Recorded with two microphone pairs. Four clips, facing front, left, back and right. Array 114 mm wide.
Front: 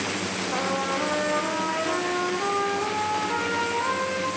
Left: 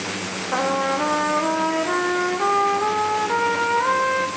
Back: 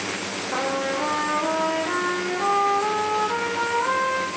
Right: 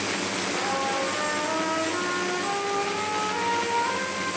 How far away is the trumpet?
About 5 m.